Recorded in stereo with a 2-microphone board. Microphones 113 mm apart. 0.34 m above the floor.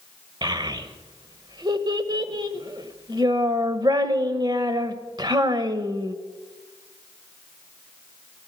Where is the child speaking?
40° right (ahead or behind), 1.2 m.